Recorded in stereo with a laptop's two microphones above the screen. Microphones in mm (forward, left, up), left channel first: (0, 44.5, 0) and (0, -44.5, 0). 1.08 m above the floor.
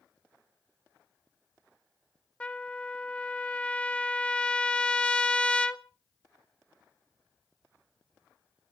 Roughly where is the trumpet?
Centre.